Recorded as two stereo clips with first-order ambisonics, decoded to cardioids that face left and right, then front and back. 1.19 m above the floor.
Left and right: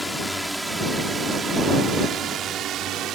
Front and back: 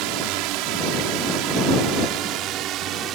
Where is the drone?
175° left; by 3.1 s 135° right.